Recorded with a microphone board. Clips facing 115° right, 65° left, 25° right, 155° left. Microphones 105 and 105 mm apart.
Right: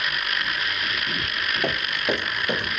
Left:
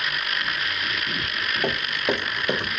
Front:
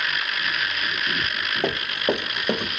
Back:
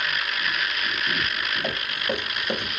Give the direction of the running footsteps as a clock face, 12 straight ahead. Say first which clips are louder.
Left 1 dB, front 9 dB; 1 o'clock.